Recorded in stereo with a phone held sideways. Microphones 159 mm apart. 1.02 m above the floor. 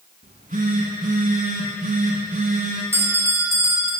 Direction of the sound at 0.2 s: 60° right (ahead or behind).